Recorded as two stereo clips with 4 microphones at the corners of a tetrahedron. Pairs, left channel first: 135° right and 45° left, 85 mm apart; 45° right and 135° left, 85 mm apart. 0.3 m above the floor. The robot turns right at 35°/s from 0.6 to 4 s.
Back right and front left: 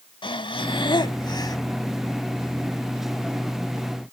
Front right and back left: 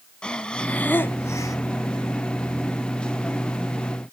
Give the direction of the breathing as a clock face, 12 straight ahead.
4 o'clock.